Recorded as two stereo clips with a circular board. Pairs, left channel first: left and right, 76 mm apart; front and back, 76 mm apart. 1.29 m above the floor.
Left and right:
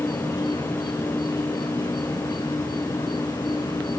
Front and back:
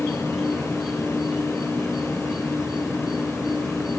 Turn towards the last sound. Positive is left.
turn(degrees=95)